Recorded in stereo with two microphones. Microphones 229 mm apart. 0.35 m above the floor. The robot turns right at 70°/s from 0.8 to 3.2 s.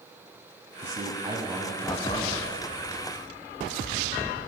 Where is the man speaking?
55° right, 2 m; by 2.4 s 55° left, 2 m.